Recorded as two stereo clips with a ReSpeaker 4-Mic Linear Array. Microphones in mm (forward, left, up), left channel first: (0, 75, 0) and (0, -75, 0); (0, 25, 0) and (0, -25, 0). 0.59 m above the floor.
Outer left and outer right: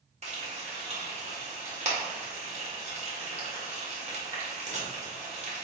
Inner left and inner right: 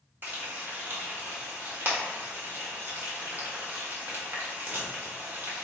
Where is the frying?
45° right (ahead or behind), 1.3 m.